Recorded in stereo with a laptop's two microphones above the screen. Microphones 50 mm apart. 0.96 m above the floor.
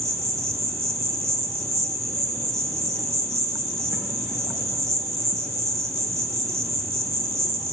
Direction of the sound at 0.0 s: 70° right (ahead or behind).